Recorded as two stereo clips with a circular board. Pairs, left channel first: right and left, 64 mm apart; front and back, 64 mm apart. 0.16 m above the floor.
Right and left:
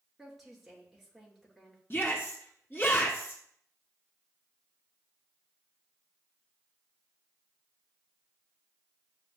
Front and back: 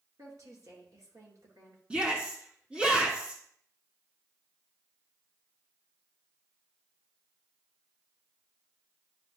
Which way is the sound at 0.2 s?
175° left.